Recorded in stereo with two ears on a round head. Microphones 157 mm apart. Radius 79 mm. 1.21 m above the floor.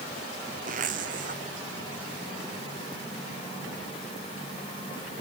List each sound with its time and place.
0.7 s a zipper: 50° right (ahead or behind)